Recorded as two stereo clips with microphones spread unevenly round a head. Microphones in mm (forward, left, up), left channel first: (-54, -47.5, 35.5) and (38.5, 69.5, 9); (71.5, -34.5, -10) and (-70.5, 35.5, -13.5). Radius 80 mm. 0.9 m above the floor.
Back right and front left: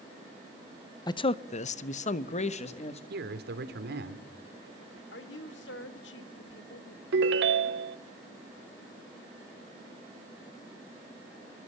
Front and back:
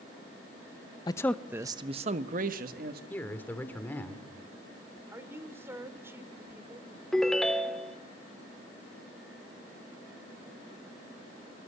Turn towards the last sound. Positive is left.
turn(degrees=60)